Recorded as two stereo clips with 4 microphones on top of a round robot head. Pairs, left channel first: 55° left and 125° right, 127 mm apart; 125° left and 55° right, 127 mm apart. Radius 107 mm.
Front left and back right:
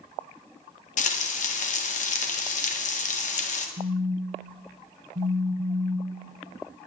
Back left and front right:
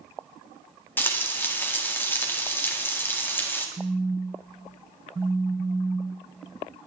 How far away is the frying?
About 1.9 m.